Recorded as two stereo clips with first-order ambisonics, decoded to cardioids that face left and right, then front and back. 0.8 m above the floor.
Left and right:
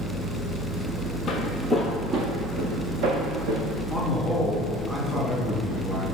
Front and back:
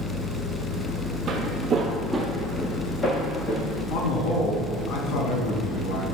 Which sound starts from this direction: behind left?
Footsteps, at 1.3 s.